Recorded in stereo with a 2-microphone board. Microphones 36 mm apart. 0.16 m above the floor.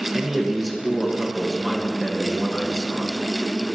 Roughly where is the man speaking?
Centre.